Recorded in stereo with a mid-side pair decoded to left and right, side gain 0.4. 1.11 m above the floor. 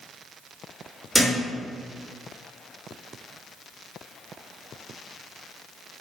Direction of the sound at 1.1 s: 5° right.